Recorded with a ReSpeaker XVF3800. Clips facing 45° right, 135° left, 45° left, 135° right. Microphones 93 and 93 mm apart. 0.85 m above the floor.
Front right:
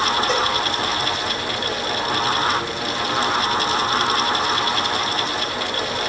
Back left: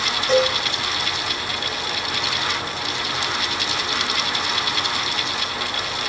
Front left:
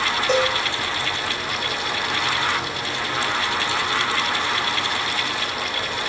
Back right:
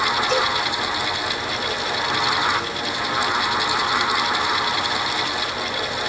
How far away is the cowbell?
About 6 m.